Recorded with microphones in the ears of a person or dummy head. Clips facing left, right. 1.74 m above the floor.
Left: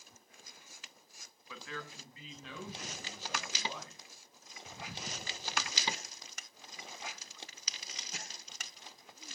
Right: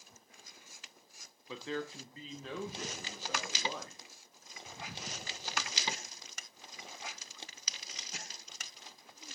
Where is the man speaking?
30° right (ahead or behind), 1.1 m; by 4.0 s 50° right (ahead or behind), 3 m.